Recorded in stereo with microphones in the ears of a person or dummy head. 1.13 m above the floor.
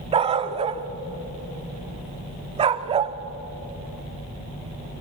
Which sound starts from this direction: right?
A dog barking, at 0.1 s.